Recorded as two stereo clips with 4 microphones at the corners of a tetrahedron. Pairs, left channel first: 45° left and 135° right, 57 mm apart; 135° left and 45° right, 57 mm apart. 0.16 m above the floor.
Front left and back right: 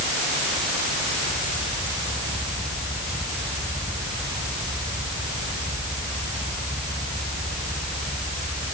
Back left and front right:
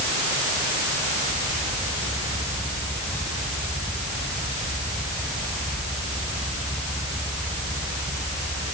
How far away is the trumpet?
I don't hear a trumpet.